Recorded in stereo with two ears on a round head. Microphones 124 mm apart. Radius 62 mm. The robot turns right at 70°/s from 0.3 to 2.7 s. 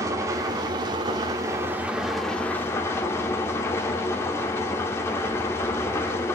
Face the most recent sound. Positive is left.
turn(degrees=35)